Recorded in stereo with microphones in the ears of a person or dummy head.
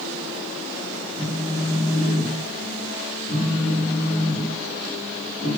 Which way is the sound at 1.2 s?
40° left (ahead or behind).